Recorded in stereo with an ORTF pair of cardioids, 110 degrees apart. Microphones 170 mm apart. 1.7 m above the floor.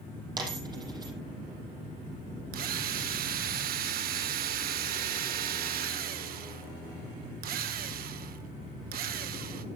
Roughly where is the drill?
Ahead right.